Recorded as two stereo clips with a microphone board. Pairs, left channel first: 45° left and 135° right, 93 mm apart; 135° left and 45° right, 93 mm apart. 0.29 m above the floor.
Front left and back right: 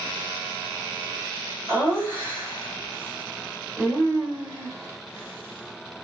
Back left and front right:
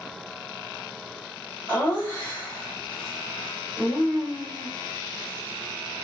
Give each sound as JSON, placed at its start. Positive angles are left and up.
{"t": 1.7, "sound": "laughter", "azimuth_deg": 180, "distance_m": 1.7}